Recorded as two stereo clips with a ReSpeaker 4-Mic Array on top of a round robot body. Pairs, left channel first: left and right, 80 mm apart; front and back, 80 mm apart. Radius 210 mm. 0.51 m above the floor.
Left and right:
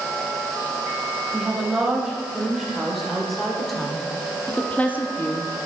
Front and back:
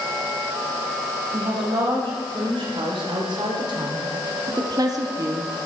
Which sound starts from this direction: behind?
A woman speaking, at 1.3 s.